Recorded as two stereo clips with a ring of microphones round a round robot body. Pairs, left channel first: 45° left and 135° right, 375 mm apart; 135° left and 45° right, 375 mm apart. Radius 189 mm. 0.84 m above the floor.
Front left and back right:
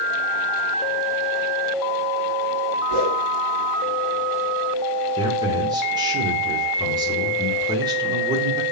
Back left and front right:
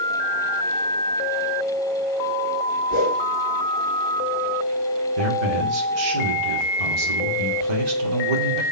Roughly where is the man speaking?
Ahead right.